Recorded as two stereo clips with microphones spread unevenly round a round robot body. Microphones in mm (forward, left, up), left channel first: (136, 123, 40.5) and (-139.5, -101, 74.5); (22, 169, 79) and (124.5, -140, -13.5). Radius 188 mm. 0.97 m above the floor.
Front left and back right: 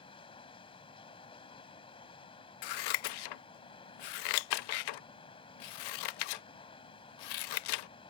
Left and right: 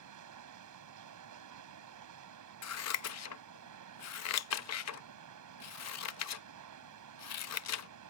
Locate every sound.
0.0 s running water: 40° right
2.6 s scissors: 65° left